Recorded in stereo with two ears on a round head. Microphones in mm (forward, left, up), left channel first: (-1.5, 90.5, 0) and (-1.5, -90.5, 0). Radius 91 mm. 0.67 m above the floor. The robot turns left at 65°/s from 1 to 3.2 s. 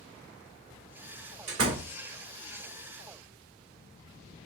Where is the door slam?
70° right (ahead or behind), 1.3 m.